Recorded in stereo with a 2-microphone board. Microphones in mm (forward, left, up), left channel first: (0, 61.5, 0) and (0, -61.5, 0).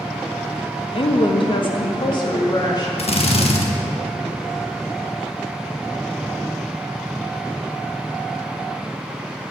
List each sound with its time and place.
0.9 s a woman speaking: 50° left (ahead or behind), 0.9 m; by 2.9 s 40° left (ahead or behind), 2.5 m
3.0 s a drill: 60° left (ahead or behind), 1.3 m